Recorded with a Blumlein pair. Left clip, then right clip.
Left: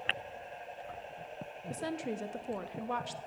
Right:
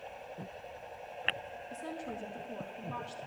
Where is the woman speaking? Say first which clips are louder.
Left 5 dB; 40° left, 1.1 m.